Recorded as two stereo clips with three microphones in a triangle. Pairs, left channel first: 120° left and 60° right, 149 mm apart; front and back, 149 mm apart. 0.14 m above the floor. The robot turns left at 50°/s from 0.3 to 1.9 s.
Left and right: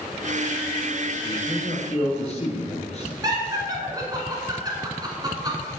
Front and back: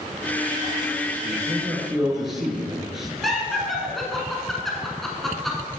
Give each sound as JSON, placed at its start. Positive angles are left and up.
{"t": 1.2, "sound": "a man speaking", "azimuth_deg": 125, "distance_m": 1.9}
{"t": 3.2, "sound": "laughter", "azimuth_deg": -90, "distance_m": 1.6}